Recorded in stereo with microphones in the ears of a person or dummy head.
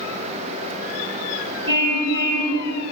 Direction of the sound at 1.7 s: 30° right (ahead or behind).